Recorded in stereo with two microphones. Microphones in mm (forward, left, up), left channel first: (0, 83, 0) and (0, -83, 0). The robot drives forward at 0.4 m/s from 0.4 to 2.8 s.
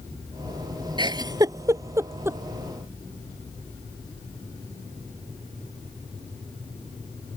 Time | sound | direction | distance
1.0 | a giggle | 30° right (ahead or behind) | ?